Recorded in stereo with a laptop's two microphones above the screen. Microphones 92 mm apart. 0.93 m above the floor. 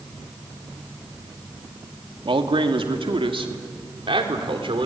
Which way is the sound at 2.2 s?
70° right (ahead or behind).